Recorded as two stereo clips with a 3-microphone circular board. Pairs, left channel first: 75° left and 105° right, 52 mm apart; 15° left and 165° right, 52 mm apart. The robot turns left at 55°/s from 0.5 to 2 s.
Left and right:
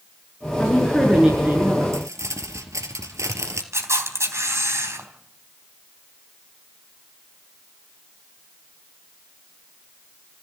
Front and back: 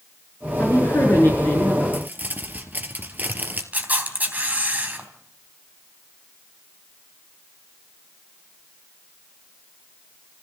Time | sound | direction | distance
0.6 | a woman speaking | 10° left | 6.5 m
1.9 | crumpling | 105° right | 3 m
3.7 | a camera shutter | 110° right | 3.5 m